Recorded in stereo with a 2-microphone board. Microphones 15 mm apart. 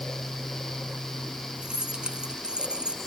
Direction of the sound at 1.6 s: 80° right.